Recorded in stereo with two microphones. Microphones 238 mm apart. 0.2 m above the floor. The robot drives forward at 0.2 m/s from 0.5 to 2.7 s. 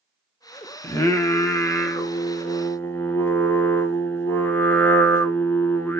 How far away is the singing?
About 0.8 m.